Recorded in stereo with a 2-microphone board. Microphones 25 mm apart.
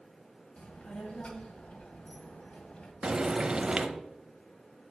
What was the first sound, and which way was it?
A child speaking, 60° left (ahead or behind).